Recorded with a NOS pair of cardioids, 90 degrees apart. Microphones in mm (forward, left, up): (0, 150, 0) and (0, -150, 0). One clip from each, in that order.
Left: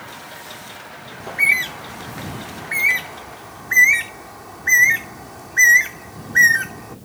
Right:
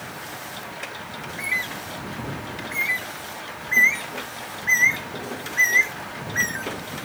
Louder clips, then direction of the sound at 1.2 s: Left 10 dB; 55° left.